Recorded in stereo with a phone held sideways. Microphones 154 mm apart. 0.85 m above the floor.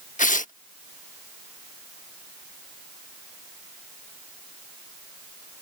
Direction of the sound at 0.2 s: 55° left (ahead or behind).